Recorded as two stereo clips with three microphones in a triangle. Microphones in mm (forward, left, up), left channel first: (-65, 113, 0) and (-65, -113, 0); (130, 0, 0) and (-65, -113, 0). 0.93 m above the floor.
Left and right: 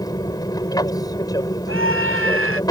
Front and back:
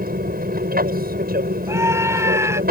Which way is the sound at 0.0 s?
165° left.